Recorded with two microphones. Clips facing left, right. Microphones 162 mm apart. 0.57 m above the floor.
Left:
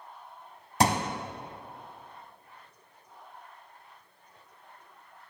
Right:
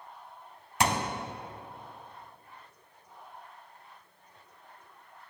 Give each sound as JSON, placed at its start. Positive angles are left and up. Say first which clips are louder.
{"t": 0.8, "sound": "a thud", "louder": "left 3 dB", "side_deg": 35, "distance_m": 0.6}